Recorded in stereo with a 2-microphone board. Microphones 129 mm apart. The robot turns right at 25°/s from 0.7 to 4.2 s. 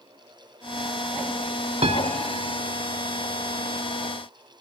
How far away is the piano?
About 0.6 m.